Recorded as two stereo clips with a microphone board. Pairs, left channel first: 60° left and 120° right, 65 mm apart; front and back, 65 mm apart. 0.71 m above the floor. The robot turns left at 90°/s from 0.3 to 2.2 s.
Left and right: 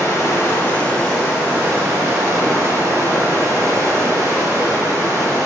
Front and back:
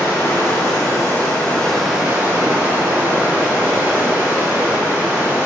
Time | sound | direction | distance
0.0 | running water | 45° left | 1.0 m